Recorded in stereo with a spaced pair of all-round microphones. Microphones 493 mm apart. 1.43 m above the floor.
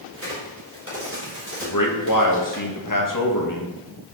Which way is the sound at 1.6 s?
40° left (ahead or behind).